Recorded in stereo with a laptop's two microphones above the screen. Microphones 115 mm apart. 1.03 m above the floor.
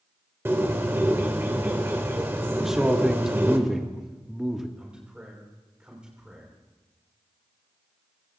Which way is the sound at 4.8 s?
10° right (ahead or behind).